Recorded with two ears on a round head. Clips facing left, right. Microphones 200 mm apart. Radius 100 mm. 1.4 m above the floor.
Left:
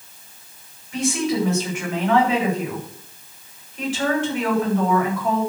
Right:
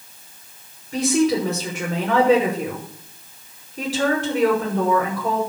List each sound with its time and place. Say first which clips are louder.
0.9 s a woman speaking: right 4 dB; 35° right (ahead or behind), 6 m